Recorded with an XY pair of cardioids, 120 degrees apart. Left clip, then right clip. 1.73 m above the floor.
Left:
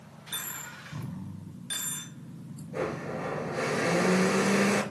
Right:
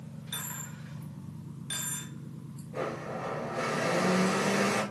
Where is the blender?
20° left, 4 m.